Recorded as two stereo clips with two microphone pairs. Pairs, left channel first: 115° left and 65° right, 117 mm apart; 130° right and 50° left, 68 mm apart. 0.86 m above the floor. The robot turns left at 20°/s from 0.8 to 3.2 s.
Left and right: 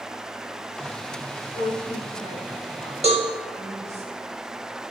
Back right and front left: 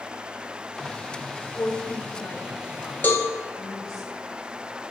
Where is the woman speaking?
90° right, 3.5 m; by 4.0 s 125° right, 3.5 m.